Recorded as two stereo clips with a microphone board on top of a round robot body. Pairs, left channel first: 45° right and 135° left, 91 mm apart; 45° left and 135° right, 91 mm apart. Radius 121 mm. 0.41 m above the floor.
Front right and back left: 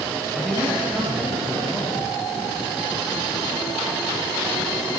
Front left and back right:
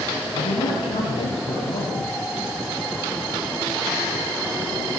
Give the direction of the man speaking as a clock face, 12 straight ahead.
10 o'clock.